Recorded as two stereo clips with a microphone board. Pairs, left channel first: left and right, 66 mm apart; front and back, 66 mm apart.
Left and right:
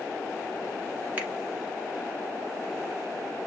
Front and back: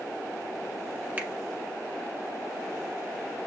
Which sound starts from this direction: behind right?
A finger snap, at 1.2 s.